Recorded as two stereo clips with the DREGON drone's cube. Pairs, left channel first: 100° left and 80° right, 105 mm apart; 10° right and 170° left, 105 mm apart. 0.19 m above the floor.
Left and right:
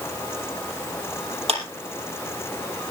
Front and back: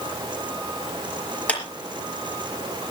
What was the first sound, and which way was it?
A clap, 85° right.